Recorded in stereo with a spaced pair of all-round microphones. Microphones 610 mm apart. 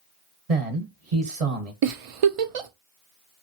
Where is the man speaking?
70° right (ahead or behind), 1.2 m.